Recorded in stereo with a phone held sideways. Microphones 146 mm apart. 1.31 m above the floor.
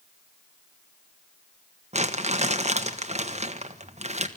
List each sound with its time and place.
1.9 s crumpling: 50° right (ahead or behind), 1.4 m